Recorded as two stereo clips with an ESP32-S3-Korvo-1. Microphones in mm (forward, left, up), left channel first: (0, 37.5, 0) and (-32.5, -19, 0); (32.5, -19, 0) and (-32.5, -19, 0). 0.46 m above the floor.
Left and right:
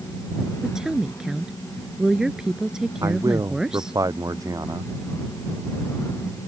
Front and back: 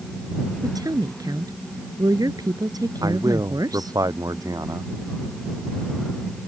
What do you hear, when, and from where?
0.6 s a woman speaking: 160° left
3.0 s a man speaking: 150° right